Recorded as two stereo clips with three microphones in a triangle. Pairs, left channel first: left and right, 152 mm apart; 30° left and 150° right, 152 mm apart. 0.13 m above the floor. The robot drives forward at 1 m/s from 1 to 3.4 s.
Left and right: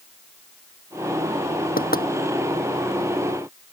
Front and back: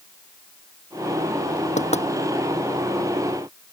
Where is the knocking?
70° left; by 2.1 s 75° left.